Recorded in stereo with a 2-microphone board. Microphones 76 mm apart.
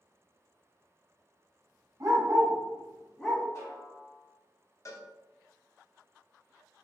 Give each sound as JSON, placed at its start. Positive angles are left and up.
{"t": 2.0, "sound": "a dog barking", "side_deg": -50, "distance_m": 1.3}
{"t": 3.5, "sound": "a snare drum", "side_deg": 40, "distance_m": 1.5}
{"t": 4.8, "sound": "a cowbell", "side_deg": 45, "distance_m": 0.6}